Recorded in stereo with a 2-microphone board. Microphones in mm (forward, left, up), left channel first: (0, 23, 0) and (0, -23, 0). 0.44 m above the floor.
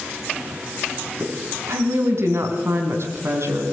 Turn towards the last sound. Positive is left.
turn(degrees=-70)  # may be behind; listen again after turning